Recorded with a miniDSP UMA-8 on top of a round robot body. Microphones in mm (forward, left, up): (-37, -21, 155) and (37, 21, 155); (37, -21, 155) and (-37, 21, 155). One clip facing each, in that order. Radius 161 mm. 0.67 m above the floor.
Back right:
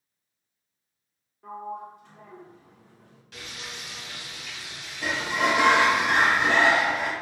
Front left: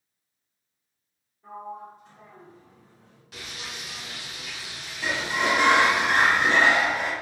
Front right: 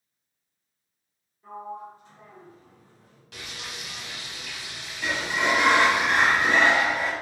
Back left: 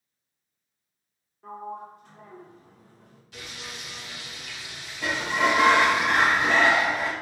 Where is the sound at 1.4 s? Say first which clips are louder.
Back right 2 dB, even; 175° right, 0.7 m.